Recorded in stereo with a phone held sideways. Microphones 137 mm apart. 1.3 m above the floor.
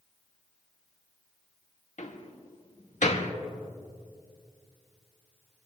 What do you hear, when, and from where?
2.0 s a door slam: 70° left (ahead or behind), 1.3 m